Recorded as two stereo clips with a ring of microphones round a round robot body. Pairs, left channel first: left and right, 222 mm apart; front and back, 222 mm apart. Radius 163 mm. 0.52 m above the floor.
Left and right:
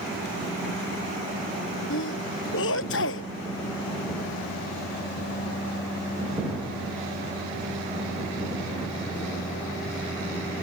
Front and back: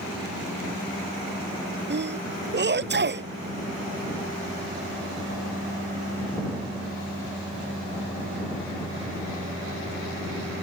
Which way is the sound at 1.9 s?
140° left.